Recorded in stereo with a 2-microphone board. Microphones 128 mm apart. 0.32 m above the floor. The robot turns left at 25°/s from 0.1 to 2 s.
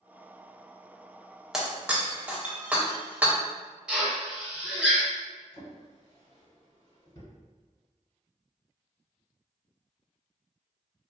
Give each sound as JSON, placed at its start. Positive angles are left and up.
{"t": 1.5, "sound": "breaking glass", "side_deg": -5, "distance_m": 0.6}
{"t": 3.9, "sound": "a drill", "side_deg": -5, "distance_m": 1.3}
{"t": 5.5, "sound": "a drawer", "side_deg": 45, "distance_m": 1.2}